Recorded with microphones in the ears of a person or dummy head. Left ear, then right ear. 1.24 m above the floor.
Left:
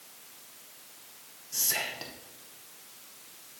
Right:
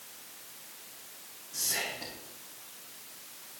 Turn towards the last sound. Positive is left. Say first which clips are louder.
# left 2 dB
turn(degrees=70)  # may be behind; listen again after turning